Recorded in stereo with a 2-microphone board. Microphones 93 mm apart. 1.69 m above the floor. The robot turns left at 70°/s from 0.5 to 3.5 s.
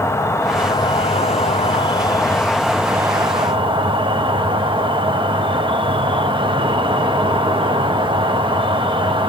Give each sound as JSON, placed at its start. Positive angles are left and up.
{"t": 0.0, "sound": "an insect", "azimuth_deg": 155, "distance_m": 0.9}